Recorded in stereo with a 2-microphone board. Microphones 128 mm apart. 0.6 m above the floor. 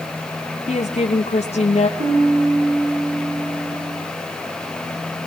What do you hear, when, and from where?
0.7 s a woman speaking: 60° left (ahead or behind), 1.3 m
2.0 s a piano: 75° right (ahead or behind), 7.5 m